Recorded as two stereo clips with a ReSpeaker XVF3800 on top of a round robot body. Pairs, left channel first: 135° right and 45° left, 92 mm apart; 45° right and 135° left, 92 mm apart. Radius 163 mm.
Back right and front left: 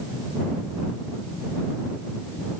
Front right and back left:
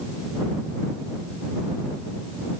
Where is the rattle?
I don't hear a rattle.